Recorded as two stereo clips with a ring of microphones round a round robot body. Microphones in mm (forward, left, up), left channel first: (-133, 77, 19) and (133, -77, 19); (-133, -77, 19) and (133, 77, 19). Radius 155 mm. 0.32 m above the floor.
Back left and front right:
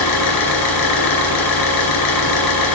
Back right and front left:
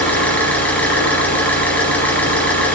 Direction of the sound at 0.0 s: 125° left.